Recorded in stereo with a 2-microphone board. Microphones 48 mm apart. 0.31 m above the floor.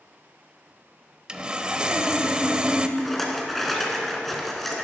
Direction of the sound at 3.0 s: 5° left (ahead or behind).